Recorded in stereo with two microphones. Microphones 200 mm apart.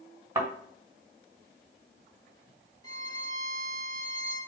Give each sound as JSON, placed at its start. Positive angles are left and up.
{"t": 0.3, "sound": "a thud", "side_deg": -15, "distance_m": 1.8}
{"t": 2.8, "sound": "a violin", "side_deg": 20, "distance_m": 1.2}